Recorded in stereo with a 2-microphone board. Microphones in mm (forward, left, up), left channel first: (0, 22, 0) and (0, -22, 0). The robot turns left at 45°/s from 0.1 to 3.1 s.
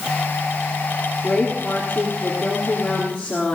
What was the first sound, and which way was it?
A woman speaking, 135° left.